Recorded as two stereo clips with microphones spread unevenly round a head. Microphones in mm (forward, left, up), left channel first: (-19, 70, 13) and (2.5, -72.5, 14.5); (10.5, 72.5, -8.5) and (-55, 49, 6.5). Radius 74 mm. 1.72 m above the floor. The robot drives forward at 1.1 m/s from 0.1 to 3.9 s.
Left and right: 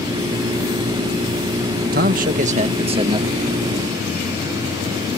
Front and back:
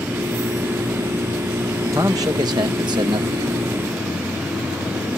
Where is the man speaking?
100° right; by 3.5 s 145° right.